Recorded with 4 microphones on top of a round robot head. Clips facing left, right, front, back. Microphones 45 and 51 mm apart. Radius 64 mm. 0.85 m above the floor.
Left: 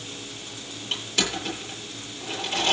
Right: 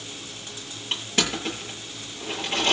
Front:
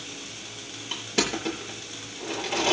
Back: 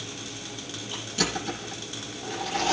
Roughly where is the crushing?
Ahead right.